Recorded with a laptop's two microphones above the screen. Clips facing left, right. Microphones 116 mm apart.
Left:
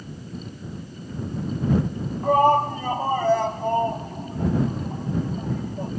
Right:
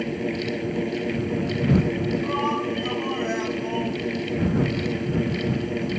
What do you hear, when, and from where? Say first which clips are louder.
0.0 s a fan: right 11 dB; 90° right
2.2 s a shout: left 6 dB; 45° left (ahead or behind)